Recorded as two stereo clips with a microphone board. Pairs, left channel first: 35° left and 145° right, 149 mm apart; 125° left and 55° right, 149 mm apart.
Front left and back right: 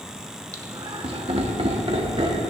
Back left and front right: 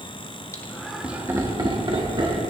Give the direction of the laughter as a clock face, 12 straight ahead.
6 o'clock.